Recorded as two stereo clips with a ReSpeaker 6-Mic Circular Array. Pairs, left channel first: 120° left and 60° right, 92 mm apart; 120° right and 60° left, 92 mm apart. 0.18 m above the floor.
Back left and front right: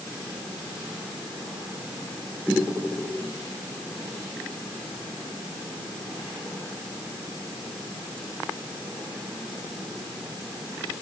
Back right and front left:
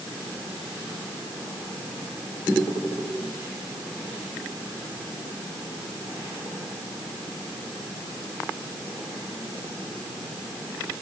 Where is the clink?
I don't hear a clink.